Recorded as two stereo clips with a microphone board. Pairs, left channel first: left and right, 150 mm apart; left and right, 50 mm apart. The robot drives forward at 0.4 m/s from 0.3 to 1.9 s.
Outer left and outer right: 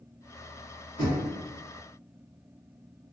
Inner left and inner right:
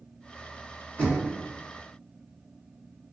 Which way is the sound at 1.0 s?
35° left (ahead or behind).